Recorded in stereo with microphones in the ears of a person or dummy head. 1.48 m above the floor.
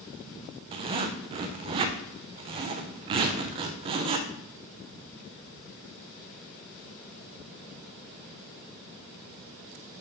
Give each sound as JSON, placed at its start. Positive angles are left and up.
{"t": 0.7, "sound": "a zipper", "side_deg": -35, "distance_m": 0.5}